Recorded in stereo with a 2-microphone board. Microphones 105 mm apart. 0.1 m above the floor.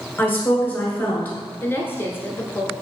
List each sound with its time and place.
0.2 s a woman speaking: 20° left (ahead or behind), 1.6 m
1.6 s a woman speaking: 20° left (ahead or behind), 1.1 m